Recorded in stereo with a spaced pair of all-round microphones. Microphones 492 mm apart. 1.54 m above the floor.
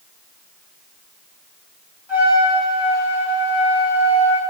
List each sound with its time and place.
2.1 s a trumpet: 70° left (ahead or behind), 6 m